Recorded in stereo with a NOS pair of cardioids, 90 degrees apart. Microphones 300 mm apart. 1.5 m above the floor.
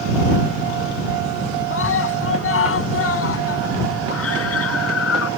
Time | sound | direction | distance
1.7 | a scream | 45° left | ?